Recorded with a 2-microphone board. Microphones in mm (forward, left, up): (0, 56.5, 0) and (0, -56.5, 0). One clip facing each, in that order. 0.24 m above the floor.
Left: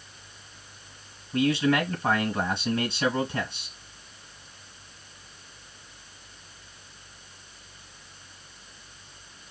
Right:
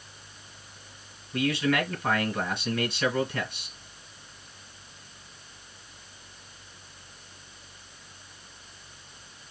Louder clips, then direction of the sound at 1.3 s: Left 3 dB; 25° left (ahead or behind).